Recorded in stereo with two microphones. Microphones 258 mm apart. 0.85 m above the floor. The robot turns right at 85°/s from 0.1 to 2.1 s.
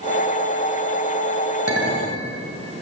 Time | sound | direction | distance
1.7 | a clink | 60° right | 3 m